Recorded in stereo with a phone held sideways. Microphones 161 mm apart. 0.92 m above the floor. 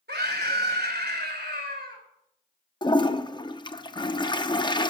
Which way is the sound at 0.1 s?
75° right (ahead or behind).